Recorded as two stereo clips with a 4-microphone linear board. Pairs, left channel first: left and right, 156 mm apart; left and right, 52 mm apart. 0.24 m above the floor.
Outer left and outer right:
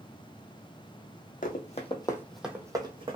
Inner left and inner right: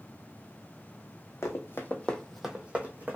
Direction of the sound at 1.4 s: 60° left (ahead or behind).